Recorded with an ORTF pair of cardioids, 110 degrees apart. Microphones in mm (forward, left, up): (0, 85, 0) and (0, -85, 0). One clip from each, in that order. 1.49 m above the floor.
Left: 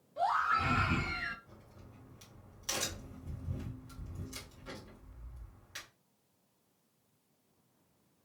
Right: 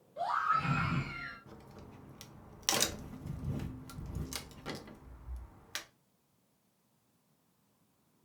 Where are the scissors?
No scissors in this recording.